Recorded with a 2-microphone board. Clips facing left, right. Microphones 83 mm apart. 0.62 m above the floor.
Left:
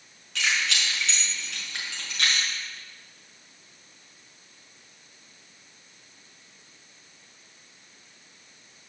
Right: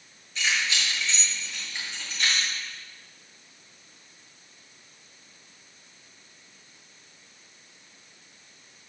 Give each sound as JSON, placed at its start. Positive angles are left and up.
{"t": 0.3, "sound": "keys jangling", "side_deg": 80, "distance_m": 5.5}